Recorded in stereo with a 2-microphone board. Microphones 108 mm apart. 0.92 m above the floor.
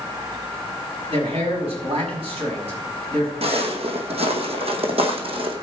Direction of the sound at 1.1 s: 65° right (ahead or behind).